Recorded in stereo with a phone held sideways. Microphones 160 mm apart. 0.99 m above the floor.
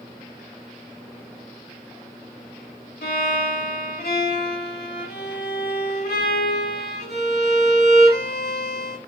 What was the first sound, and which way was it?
A violin, 85° left.